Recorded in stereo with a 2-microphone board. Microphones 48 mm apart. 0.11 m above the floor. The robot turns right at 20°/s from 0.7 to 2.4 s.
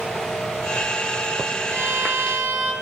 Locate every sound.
1.7 s a violin: 35° right (ahead or behind), 1.1 m; by 2.7 s 30° right (ahead or behind), 1.1 m